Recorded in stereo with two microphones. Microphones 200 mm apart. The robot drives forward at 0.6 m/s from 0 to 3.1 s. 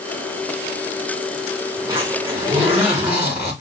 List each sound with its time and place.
1.8 s a zipper: 15° right (ahead or behind), 6.5 m